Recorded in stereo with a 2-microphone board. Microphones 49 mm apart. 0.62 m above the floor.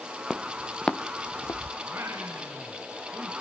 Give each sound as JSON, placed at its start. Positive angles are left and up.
{"t": 0.3, "sound": "footsteps", "side_deg": -10, "distance_m": 1.1}
{"t": 1.8, "sound": "singing", "side_deg": -55, "distance_m": 4.5}